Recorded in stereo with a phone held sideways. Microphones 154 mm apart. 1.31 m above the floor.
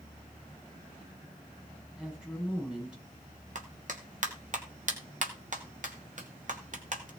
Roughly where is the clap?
Right.